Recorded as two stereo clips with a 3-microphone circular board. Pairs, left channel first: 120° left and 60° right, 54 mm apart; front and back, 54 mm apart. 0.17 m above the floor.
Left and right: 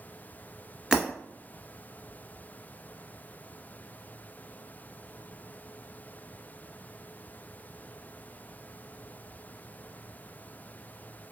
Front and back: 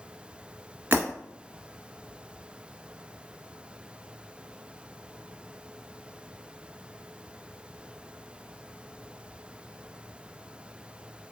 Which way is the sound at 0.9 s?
140° right.